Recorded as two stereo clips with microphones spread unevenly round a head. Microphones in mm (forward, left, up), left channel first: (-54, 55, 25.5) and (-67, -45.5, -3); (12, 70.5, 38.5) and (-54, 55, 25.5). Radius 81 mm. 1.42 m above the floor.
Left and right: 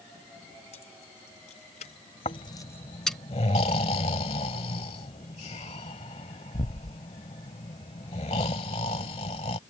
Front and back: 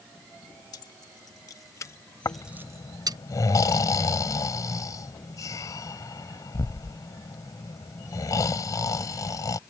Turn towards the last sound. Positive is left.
turn(degrees=40)